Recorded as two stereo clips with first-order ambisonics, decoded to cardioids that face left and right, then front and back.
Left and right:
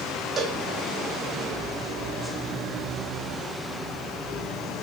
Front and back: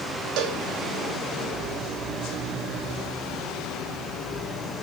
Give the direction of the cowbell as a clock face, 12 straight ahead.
5 o'clock.